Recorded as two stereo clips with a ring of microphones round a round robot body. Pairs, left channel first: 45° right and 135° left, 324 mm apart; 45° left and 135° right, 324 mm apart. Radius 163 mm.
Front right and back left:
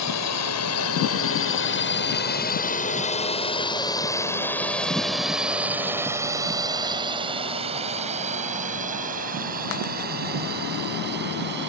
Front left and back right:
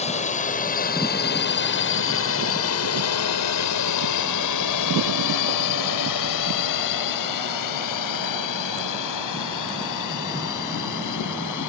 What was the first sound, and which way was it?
A drone, 20° right.